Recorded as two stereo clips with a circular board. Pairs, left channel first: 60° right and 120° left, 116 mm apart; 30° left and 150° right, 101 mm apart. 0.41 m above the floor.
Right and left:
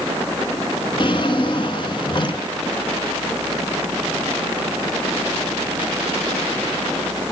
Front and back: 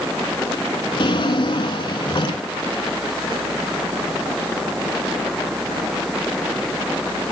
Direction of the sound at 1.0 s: 15° right.